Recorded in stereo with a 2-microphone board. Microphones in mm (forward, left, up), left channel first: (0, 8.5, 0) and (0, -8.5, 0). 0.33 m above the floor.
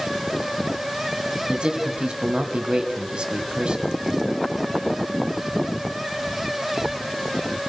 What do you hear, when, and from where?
1.5 s a man speaking: 55° right (ahead or behind), 2.5 m